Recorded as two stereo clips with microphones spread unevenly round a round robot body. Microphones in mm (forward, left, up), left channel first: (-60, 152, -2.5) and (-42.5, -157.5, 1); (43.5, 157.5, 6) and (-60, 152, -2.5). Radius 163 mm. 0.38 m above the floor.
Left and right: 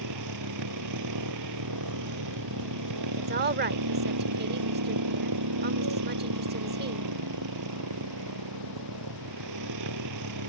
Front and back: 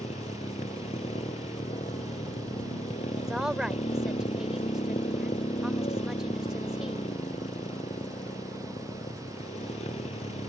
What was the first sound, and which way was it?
A motorcycle, 50° right.